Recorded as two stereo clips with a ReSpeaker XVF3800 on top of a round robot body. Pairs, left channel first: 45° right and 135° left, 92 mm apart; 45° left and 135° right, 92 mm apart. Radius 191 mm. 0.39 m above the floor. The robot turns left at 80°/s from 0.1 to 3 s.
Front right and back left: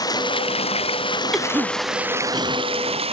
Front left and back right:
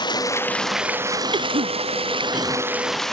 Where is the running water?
5° left; by 3.1 s 130° left.